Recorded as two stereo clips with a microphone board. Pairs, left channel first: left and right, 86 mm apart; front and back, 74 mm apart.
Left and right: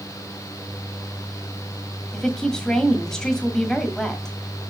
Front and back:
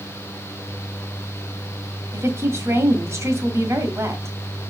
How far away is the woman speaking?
About 1.5 m.